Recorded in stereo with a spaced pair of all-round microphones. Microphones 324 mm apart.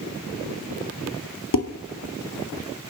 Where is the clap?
No clap in this recording.